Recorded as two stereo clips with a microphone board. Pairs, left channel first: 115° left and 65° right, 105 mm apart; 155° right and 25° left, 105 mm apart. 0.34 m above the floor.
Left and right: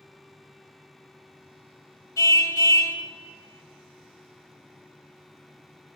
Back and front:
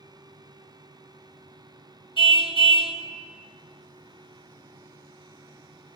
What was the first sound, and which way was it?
A car horn, 175° left.